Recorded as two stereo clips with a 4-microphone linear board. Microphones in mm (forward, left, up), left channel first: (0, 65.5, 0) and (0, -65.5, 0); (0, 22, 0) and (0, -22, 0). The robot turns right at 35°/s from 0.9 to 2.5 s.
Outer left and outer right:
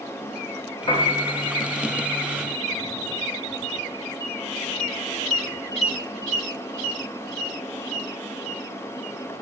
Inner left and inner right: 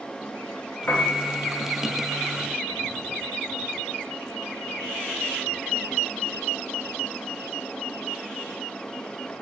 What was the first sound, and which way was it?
A piano, 40° left (ahead or behind).